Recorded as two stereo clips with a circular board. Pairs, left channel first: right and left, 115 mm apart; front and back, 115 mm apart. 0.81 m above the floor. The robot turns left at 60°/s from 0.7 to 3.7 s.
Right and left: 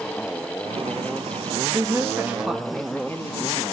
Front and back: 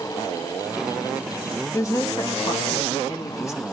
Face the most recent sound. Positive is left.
turn(degrees=-65)